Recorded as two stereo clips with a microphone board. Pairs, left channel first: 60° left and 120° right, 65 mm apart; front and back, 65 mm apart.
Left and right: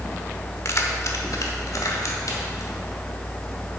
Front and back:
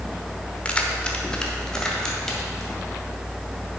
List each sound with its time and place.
0.7 s keys jangling: 60° left, 0.9 m; by 2.8 s 80° left, 2.5 m